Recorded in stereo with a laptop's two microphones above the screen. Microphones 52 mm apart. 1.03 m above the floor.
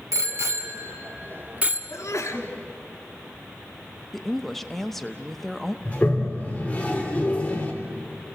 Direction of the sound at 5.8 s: 25° left (ahead or behind).